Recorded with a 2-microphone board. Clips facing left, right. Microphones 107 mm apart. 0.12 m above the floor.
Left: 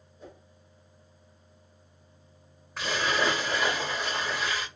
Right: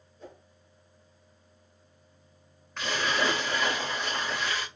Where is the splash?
5° left (ahead or behind), 2.5 m.